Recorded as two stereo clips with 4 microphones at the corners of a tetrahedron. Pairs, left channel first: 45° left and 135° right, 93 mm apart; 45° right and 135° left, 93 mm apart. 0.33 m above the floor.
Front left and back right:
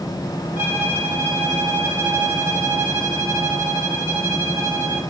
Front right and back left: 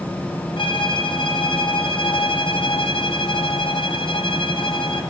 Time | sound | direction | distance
0.6 | a violin | 65° right | 2 m